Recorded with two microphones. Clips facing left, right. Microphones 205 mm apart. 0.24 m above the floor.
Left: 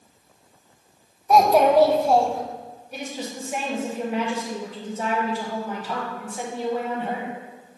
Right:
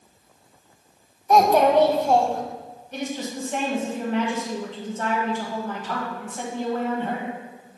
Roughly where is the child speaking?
Centre.